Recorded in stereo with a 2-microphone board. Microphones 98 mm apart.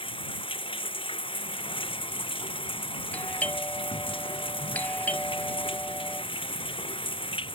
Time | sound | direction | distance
0.0 | running water | 55° left (ahead or behind) | ?
3.1 | a doorbell | 15° left (ahead or behind) | ?